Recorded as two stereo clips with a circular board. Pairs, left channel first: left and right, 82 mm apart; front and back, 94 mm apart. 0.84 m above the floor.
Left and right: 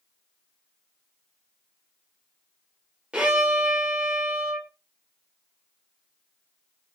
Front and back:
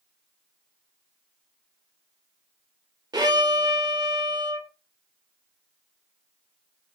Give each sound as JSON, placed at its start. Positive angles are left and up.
{"t": 3.1, "sound": "a violin", "azimuth_deg": -160, "distance_m": 0.7}